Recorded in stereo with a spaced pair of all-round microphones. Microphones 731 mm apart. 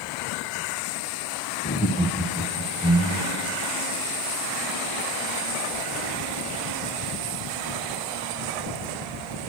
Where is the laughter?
20° left (ahead or behind), 0.5 m; by 3.5 s centre (ahead or behind), 2 m.